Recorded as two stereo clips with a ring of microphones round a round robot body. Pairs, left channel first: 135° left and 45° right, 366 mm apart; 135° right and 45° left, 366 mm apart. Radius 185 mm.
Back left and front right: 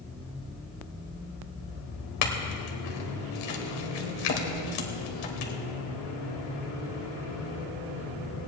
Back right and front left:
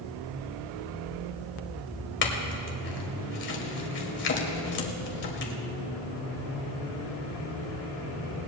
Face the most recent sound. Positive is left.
turn(degrees=165)